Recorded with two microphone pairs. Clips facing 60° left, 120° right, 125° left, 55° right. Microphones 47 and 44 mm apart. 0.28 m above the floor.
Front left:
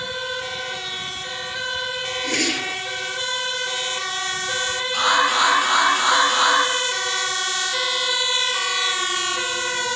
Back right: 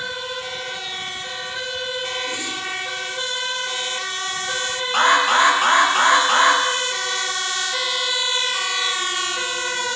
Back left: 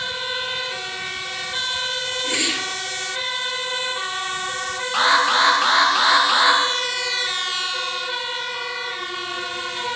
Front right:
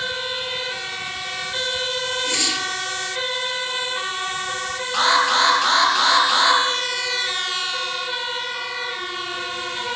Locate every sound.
2.2 s a whoosh: 60° left, 1.4 m
4.9 s an alarm: 165° right, 7.5 m